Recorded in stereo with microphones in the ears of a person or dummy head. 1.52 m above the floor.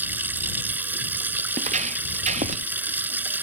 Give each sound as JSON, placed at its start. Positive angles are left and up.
{"t": 0.0, "sound": "running water", "side_deg": -10}
{"t": 1.5, "sound": "footsteps", "side_deg": -45}